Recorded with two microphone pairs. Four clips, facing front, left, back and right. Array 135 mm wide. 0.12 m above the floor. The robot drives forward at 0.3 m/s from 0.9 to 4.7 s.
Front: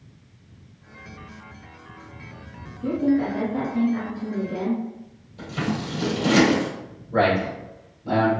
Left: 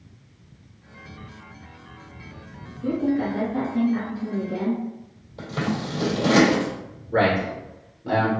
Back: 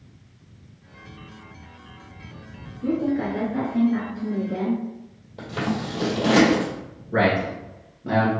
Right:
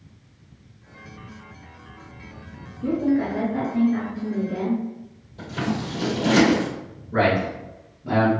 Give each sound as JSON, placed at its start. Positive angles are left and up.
{"t": 2.8, "sound": "a woman speaking", "azimuth_deg": -115, "distance_m": 1.6}
{"t": 5.4, "sound": "scissors", "azimuth_deg": 155, "distance_m": 1.9}
{"t": 7.1, "sound": "a man speaking", "azimuth_deg": 160, "distance_m": 1.7}